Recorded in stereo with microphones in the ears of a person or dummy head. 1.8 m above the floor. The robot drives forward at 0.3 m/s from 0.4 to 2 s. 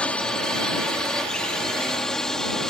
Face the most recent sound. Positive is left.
turn(degrees=0)  # may be behind; listen again after turning